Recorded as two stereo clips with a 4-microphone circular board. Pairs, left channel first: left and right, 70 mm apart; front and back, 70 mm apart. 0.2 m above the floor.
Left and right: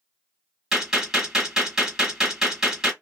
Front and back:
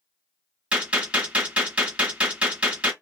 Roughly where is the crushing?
No crushing in this recording.